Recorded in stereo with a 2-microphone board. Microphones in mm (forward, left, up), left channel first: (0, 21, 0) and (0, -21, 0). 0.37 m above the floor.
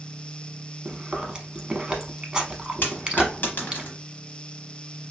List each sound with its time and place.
0.8 s chewing: 20° right (ahead or behind), 0.7 m
2.8 s a dropped coin: 55° left (ahead or behind), 0.9 m